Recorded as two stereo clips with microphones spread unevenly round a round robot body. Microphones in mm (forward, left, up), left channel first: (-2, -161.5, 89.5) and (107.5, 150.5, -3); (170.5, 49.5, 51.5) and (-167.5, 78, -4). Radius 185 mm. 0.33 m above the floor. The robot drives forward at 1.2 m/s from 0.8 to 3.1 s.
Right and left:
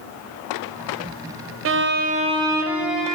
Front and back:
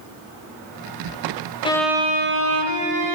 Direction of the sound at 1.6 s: 75° left.